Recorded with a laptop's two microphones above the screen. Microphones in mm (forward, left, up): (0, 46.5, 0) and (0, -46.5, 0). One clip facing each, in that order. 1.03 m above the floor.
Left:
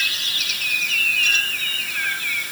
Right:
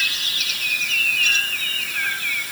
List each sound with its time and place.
Only background noise.